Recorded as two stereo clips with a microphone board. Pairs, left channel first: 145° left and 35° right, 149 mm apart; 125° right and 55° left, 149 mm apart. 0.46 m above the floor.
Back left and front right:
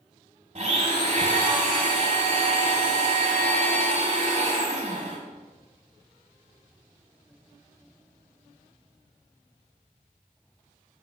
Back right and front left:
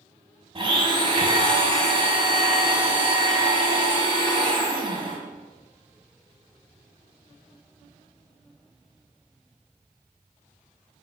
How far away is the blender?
About 1.3 m.